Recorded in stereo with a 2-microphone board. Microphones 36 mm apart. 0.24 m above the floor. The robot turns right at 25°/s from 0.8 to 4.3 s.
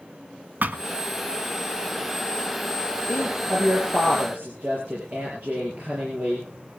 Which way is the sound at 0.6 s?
55° right (ahead or behind).